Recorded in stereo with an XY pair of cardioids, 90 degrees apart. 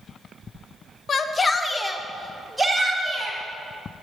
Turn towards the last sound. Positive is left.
turn(degrees=-20)